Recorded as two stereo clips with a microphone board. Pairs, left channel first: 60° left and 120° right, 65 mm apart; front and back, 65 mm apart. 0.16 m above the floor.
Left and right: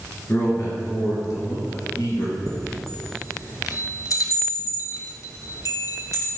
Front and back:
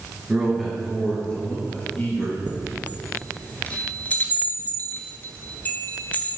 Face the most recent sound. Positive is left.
turn(degrees=60)